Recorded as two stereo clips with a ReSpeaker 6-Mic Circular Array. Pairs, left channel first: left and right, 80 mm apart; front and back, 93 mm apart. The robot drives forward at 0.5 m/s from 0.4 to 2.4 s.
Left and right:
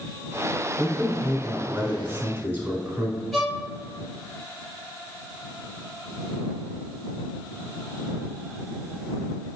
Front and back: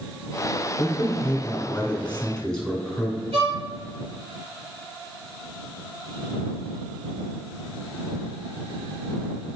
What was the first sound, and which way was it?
A man speaking, 35° right.